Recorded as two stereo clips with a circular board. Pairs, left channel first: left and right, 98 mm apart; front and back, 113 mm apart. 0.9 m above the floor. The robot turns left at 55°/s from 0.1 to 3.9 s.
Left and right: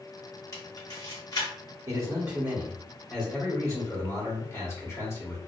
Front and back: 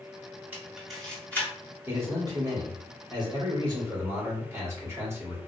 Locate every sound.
0.5 s a camera shutter: 115° left, 1.0 m; by 1.5 s 60° left, 1.0 m
1.9 s a man speaking: 115° right, 1.2 m; by 5.4 s 130° left, 1.2 m